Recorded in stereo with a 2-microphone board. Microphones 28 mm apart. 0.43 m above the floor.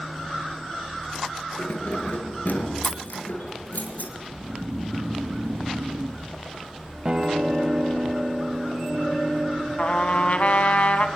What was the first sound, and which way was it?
Keys jangling, 85° left.